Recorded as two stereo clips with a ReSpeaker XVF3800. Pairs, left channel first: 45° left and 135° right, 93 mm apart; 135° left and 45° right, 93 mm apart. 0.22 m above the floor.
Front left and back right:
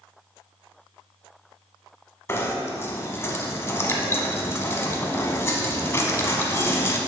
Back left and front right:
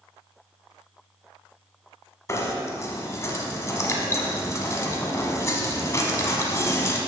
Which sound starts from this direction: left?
Knocking, at 2.3 s.